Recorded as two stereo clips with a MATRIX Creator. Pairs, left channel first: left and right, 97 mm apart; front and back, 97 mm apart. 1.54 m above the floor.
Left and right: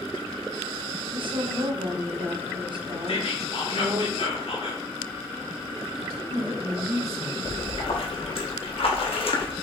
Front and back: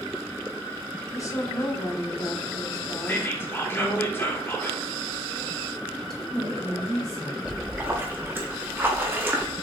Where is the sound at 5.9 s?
85° right, 1.6 m.